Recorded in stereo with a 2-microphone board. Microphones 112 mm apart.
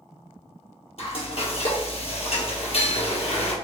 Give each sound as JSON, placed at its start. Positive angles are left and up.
{"t": 1.0, "sound": "frying", "side_deg": 60, "distance_m": 1.3}